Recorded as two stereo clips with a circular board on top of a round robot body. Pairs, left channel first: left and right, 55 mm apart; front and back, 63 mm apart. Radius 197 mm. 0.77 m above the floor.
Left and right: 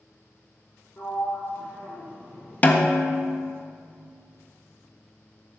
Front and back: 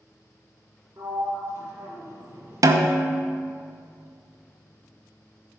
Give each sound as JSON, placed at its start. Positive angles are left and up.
{"t": 1.0, "sound": "a sliding door", "azimuth_deg": 135, "distance_m": 2.0}
{"t": 2.6, "sound": "a snare drum", "azimuth_deg": 150, "distance_m": 0.7}